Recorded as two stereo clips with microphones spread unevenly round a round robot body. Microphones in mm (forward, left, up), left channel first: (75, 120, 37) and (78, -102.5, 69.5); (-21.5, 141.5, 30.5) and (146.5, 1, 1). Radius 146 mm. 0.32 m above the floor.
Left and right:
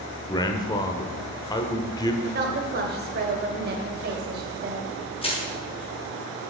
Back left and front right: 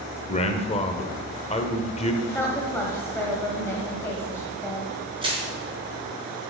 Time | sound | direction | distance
0.3 | a man speaking | 100° left | 0.9 m
2.2 | a woman speaking | 135° right | 1.3 m
5.2 | crushing | 25° left | 4.5 m